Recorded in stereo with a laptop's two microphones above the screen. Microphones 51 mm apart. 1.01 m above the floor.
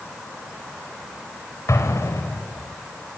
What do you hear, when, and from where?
1.7 s an explosion: 80° left, 4.5 m